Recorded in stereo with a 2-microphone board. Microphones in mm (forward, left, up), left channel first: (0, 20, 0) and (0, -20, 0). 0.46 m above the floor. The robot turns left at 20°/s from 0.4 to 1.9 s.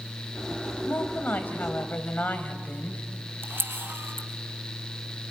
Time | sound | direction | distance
0.9 | a woman speaking | 65° left (ahead or behind) | 2.5 m
3.4 | a camera shutter | 70° right (ahead or behind) | 2.5 m